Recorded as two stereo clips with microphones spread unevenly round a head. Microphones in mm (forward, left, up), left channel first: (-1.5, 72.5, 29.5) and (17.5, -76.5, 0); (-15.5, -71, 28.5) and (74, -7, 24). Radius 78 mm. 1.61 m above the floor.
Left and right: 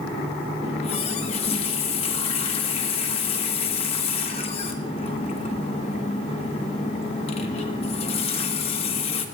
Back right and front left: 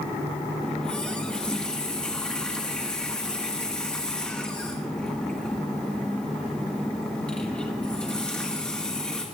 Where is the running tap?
135° left, 1.5 m.